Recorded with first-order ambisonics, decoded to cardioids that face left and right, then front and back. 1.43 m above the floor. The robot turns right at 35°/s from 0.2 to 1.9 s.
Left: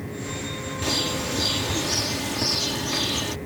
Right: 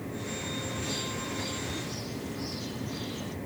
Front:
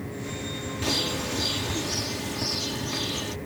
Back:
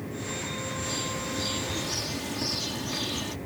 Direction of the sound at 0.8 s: 45° left.